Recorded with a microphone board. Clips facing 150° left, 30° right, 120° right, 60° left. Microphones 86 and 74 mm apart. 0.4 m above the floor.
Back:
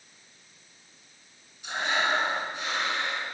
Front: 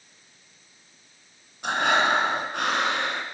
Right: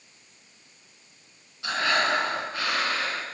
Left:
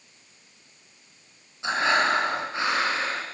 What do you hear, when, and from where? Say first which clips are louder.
1.6 s breathing: front 6 dB, left 2 dB; 5° right, 4.5 m